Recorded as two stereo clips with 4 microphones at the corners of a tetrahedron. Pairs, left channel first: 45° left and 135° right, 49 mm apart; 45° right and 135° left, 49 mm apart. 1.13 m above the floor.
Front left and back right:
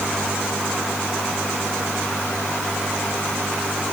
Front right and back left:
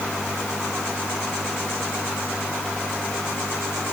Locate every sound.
Only background noise.